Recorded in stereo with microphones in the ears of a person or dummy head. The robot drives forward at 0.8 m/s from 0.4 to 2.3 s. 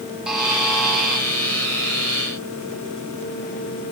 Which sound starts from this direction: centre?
A buzzer, at 0.3 s.